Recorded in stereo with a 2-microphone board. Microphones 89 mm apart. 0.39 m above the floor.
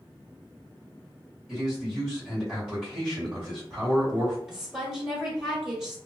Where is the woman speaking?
5° right (ahead or behind), 1.5 m.